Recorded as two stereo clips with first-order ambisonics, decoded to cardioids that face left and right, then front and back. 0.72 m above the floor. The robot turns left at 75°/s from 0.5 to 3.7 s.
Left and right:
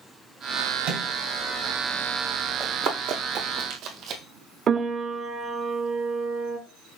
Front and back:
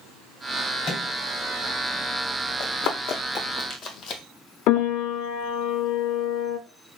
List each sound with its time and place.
0.8 s a microwave: 55° right, 2.5 m; by 1.1 s 75° right, 2.5 m
2.6 s running footsteps: 25° right, 2 m; by 4.2 s 40° right, 1.1 m
4.7 s a piano: 30° right, 0.6 m